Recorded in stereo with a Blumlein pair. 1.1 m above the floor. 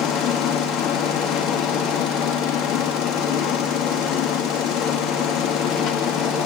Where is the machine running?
35° left, 2 m.